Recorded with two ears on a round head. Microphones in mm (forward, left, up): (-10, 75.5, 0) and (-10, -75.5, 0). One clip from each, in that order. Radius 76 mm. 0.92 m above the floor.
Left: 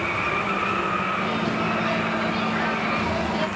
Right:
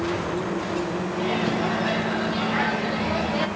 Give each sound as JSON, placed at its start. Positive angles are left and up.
{"t": 1.1, "sound": "a microwave", "side_deg": -5, "distance_m": 1.5}